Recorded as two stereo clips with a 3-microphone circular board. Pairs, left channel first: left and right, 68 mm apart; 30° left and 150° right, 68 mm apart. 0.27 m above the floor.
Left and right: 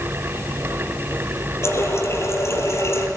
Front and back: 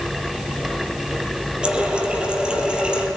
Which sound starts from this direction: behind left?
A running tap, at 1.6 s.